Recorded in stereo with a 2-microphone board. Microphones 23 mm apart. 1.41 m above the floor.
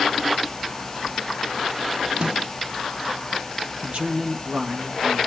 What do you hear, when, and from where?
2.2 s a snare drum: 45° right (ahead or behind), 1.4 m
3.8 s a man speaking: 60° right (ahead or behind), 2.5 m